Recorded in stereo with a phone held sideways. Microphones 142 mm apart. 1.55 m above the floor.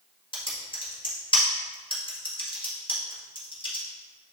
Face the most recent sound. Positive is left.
turn(degrees=40)  # may be behind; listen again after turning